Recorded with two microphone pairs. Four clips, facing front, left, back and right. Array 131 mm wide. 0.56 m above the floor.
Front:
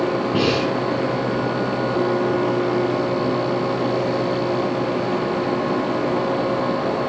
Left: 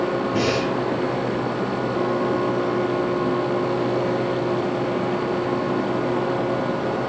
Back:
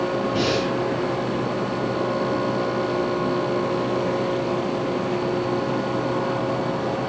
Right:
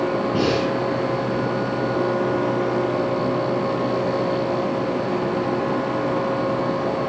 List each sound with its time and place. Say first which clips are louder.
0.3 s breathing: right 1 dB, front 4 dB; 15° right, 4.5 m